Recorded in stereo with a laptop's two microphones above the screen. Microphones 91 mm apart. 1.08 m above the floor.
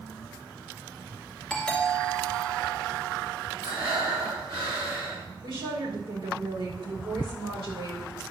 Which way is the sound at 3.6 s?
80° right.